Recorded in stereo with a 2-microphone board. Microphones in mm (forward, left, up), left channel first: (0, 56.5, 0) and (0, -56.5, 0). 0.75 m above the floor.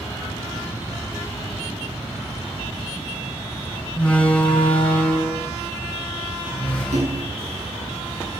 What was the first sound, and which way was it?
A door slam, 10° left (ahead or behind).